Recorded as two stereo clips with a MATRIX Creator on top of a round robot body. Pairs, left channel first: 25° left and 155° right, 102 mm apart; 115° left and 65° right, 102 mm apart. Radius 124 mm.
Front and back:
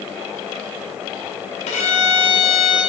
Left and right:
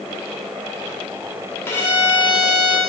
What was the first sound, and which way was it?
A violin, 40° left.